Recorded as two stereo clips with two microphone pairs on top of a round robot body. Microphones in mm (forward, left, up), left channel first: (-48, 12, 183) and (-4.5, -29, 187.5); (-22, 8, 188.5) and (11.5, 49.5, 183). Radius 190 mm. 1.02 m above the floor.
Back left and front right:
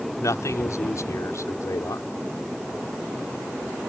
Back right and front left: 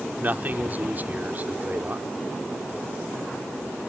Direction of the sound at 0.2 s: 105° left.